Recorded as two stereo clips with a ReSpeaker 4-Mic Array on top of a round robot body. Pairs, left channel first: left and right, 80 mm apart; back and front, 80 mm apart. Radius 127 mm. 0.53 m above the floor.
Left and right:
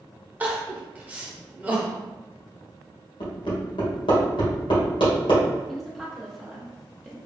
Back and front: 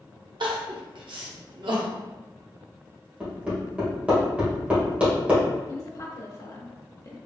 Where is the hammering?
75° left, 1.7 m.